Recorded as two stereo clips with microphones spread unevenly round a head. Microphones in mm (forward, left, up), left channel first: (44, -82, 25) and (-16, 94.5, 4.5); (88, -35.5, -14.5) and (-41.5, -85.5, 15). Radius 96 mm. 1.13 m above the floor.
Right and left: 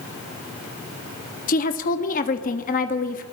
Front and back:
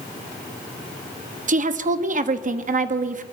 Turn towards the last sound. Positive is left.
turn(degrees=-125)